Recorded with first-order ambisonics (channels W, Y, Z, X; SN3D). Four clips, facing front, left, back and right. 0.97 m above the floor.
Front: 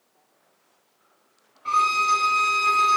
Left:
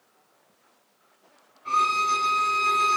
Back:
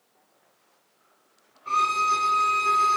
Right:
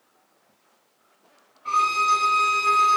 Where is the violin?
5° right, 3 m.